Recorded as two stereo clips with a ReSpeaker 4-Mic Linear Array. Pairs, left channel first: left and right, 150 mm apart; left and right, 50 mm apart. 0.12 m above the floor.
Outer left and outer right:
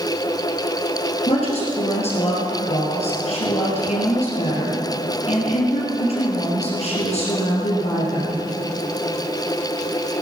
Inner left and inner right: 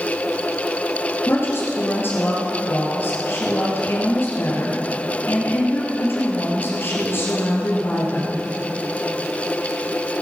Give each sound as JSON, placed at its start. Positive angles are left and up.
{"t": 1.3, "sound": "a woman speaking", "side_deg": 45, "distance_m": 2.5}